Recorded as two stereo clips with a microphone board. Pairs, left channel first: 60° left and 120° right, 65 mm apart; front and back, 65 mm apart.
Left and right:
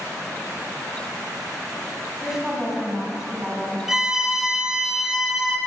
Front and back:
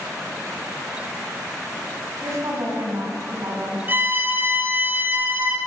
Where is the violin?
160° left, 0.8 m.